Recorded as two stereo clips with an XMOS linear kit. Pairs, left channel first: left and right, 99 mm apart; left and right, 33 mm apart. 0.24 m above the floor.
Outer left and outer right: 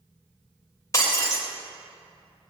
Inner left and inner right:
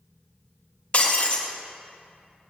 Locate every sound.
0.9 s breaking glass: 35° left (ahead or behind), 4 m